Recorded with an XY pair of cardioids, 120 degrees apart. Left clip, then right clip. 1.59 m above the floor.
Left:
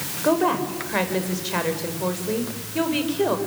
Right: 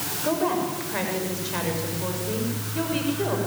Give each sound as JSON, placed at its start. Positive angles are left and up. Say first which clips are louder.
{"t": 0.2, "sound": "a woman speaking", "louder": "left 4 dB", "azimuth_deg": 35, "distance_m": 6.5}